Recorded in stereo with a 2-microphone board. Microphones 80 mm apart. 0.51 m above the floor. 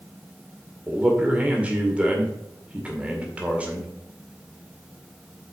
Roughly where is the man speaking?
Centre.